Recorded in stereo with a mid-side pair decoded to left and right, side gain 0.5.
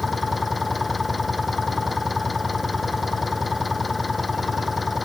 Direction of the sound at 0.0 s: 25° left.